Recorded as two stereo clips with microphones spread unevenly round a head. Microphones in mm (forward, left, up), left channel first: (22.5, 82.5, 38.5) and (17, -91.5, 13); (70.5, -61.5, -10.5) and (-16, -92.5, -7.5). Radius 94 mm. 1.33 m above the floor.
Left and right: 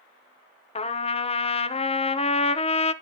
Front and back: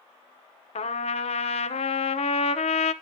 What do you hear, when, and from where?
0.8 s a trumpet: 30° left, 0.7 m